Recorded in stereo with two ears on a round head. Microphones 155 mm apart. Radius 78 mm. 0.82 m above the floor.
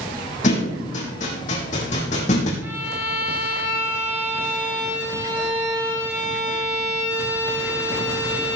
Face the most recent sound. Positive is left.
turn(degrees=-15)  # may be behind; listen again after turning